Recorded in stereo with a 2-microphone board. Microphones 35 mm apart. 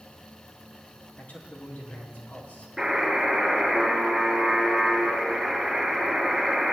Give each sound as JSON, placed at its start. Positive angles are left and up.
{"t": 1.2, "sound": "a man speaking", "side_deg": 65, "distance_m": 4.0}
{"t": 2.8, "sound": "a buzzer", "side_deg": -5, "distance_m": 5.0}